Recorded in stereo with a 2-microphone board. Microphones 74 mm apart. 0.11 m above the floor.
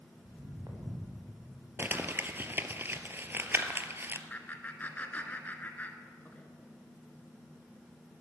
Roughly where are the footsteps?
Right.